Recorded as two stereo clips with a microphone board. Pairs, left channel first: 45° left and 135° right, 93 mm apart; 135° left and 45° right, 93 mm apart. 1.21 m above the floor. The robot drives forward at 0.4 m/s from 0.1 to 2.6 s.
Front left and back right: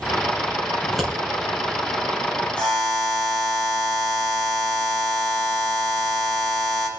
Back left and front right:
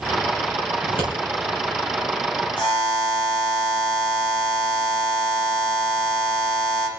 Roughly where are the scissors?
Behind left.